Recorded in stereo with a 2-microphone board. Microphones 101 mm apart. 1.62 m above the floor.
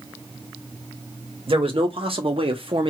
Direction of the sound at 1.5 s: 65° right (ahead or behind).